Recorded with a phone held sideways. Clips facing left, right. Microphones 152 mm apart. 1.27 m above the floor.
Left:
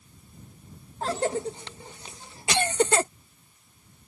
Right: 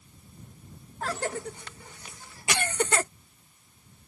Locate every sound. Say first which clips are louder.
1.0 s a cough: left 5 dB; 25° left (ahead or behind)